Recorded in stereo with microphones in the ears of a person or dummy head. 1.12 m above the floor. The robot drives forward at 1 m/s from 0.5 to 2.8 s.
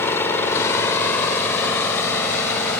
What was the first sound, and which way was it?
An engine running, 10° left (ahead or behind).